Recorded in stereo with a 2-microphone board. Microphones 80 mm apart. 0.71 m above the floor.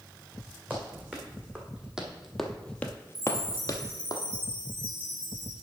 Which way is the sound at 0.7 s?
20° right (ahead or behind).